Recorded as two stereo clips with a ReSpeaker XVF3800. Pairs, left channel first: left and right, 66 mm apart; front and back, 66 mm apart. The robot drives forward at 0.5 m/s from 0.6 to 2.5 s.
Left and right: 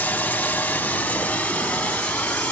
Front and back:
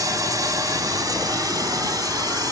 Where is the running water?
160° left, 1.8 m; by 2.5 s 165° left, 2.5 m.